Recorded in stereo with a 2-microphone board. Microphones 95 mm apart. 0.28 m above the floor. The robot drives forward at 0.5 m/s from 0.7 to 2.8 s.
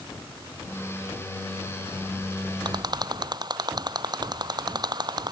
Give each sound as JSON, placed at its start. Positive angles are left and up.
{"t": 2.6, "sound": "a rattle", "side_deg": -45}